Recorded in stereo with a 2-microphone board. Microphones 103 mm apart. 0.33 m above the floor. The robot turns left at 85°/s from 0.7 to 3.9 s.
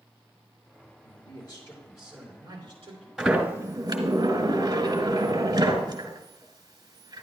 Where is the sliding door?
5° right, 1.9 m; by 7.2 s 65° right, 1.9 m.